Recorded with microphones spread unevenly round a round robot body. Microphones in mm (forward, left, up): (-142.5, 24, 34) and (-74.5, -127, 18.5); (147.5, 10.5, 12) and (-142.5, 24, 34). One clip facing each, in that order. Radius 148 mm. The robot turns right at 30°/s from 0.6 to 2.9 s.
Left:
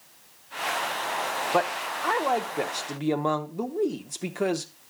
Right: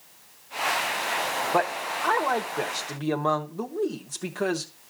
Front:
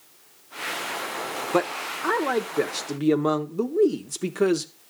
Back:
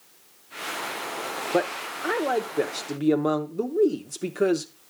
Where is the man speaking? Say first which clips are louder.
Even, front 1 dB; 10° left, 0.7 m; by 4.7 s 50° left, 0.7 m.